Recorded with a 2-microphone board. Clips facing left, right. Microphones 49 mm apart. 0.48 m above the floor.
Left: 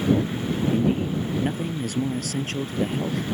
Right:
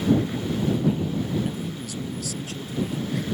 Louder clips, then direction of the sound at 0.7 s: Left 2 dB; 45° left (ahead or behind).